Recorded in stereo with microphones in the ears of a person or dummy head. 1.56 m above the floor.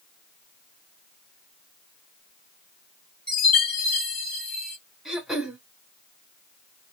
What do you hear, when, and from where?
3.3 s a chime: 5° left (ahead or behind), 1.3 m
5.0 s throat clearing: centre (ahead or behind), 0.9 m